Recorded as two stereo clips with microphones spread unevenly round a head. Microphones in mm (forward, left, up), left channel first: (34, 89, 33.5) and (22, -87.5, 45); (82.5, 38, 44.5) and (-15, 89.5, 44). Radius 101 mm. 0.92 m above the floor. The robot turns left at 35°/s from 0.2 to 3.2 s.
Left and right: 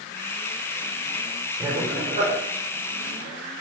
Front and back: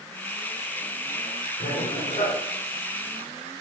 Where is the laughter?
20° right, 4 m; by 2.3 s 45° right, 4 m.